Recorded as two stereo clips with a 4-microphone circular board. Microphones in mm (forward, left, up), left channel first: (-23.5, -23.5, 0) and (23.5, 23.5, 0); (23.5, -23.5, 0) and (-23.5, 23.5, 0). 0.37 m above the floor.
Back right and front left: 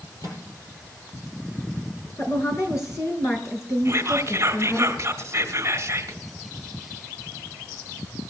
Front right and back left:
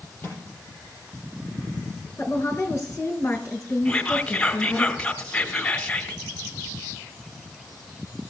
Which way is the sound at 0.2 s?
110° right.